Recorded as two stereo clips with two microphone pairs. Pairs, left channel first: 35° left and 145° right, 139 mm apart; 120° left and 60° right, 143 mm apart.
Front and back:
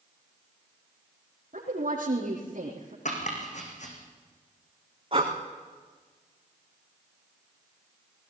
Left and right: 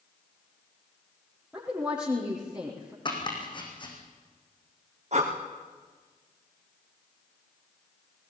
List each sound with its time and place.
1.5 s a woman speaking: 140° right, 4.5 m
3.0 s chopping: 60° left, 4.5 m
5.1 s breathing: 100° right, 3.5 m